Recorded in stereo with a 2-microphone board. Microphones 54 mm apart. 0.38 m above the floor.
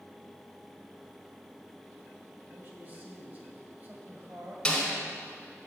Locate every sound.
2.5 s a man speaking: 35° right (ahead or behind), 1.7 m
4.7 s a snare drum: 10° left (ahead or behind), 1.9 m